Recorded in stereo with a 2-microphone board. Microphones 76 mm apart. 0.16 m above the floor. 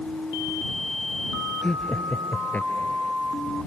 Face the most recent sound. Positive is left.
turn(degrees=30)  # may be behind; listen again after turning